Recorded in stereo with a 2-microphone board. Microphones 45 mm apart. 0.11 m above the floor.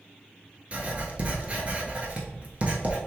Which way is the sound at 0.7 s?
30° right (ahead or behind).